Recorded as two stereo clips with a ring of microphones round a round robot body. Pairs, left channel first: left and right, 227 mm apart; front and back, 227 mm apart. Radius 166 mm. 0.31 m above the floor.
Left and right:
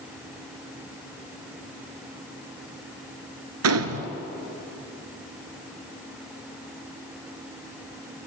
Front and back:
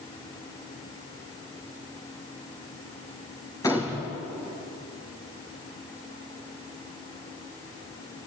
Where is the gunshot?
80° right, 1.6 m.